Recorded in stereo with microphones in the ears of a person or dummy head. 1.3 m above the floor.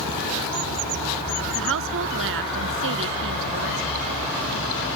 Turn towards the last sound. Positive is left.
turn(degrees=-70)  # may be behind; listen again after turning